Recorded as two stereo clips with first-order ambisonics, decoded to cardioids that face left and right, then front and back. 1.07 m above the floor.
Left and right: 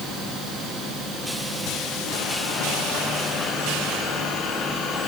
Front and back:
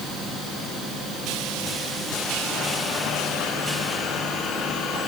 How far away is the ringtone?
No ringtone in this recording.